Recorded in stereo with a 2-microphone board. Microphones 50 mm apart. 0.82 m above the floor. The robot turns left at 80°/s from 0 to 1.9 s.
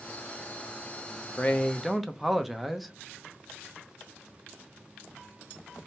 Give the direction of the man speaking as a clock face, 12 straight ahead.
11 o'clock.